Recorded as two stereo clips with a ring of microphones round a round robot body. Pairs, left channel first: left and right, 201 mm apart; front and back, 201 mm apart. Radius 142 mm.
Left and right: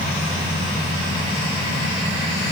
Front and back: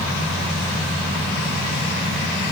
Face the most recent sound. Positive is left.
No sound to turn to.